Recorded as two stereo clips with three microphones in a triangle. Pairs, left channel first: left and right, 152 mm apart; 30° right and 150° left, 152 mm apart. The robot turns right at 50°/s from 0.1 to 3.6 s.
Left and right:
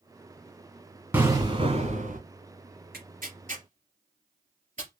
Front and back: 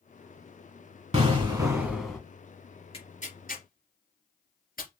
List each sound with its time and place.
1.1 s an explosion: 170° right, 1.7 m; by 2.2 s 115° right, 1.7 m
2.9 s tearing paper: 85° right, 3 m; by 4.9 s 50° right, 3 m